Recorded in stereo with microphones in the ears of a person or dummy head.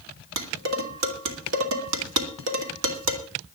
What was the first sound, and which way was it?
Dishes clattering, 85° right.